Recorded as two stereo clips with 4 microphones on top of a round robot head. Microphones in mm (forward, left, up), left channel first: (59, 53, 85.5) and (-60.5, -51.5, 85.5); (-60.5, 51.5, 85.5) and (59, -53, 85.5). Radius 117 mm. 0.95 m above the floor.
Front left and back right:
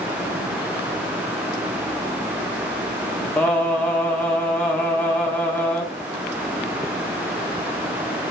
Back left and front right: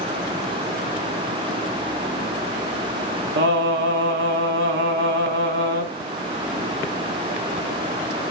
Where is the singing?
40° right, 1.5 m.